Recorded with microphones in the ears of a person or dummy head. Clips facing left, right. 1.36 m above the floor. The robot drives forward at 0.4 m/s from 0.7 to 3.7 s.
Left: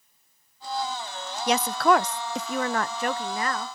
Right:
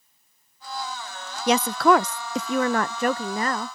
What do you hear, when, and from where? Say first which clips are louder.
1.5 s a woman speaking: right 3 dB; 65° right (ahead or behind); by 3.7 s 35° right (ahead or behind)